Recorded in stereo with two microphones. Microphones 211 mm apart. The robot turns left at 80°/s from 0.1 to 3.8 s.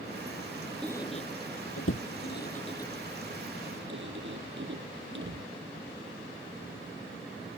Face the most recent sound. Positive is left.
turn(degrees=-60)  # may be behind; listen again after turning